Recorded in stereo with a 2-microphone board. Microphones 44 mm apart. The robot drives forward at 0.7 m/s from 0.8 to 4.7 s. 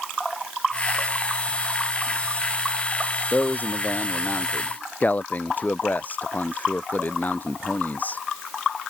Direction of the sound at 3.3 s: 45° left (ahead or behind).